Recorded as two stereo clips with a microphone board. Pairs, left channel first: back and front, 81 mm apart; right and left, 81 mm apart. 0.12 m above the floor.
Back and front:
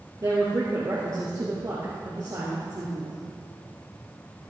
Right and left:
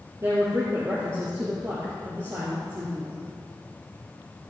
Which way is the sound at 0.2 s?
40° left.